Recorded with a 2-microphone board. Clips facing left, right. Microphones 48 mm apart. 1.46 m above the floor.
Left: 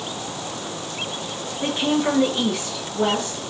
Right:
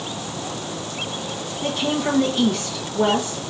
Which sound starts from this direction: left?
A woman speaking, at 1.6 s.